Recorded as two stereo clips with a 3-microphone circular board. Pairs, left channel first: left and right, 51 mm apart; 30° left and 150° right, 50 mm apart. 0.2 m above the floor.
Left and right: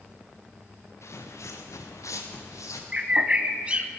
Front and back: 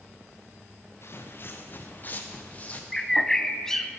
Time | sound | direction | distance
1.0 | footsteps | 65° left | 1.4 m
2.9 | a bird | 50° right | 0.7 m